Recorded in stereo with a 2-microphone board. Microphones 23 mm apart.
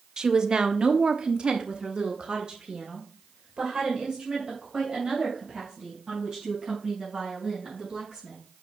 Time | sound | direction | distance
0.2 | a woman speaking | 35° right (ahead or behind) | 0.9 m